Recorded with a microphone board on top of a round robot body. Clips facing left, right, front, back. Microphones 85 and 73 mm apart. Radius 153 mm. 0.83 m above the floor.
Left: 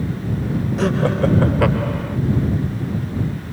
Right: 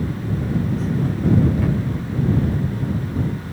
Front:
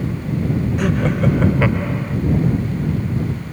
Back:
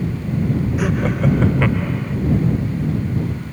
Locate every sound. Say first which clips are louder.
0.8 s laughter: left 4 dB, front 3 dB; 95° left; by 2.2 s 80° left